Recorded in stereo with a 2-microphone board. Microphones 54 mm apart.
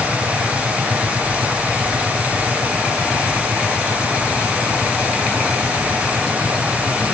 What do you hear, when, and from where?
Only background noise.